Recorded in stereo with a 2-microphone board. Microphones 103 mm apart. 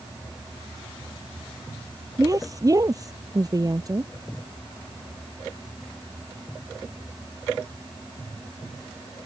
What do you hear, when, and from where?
2.2 s a woman speaking: 35° right (ahead or behind)